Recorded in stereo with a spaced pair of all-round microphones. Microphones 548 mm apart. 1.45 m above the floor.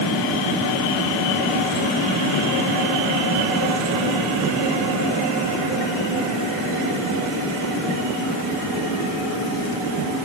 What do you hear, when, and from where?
Only background noise.